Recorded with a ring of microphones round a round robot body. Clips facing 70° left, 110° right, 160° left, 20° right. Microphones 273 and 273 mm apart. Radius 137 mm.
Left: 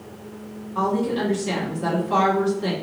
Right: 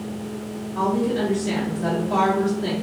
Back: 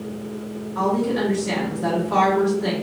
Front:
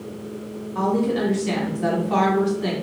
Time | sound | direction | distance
0.8 | a woman speaking | 10° right | 1.9 m